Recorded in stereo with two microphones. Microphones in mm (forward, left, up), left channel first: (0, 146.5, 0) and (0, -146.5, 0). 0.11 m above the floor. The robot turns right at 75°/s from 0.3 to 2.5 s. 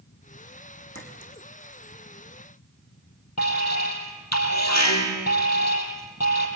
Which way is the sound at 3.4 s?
65° left (ahead or behind).